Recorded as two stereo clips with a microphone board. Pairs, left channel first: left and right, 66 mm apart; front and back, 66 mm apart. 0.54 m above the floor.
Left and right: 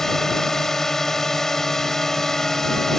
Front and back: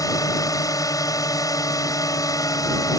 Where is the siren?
I don't hear a siren.